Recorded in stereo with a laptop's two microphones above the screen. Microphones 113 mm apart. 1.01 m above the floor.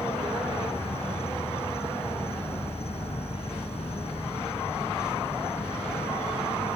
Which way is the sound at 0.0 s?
65° left (ahead or behind).